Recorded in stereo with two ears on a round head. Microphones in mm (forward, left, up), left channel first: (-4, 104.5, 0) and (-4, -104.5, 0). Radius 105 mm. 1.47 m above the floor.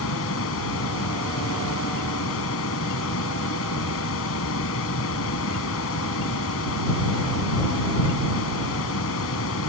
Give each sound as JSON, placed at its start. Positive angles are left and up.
{"t": 0.0, "sound": "running water", "side_deg": 65}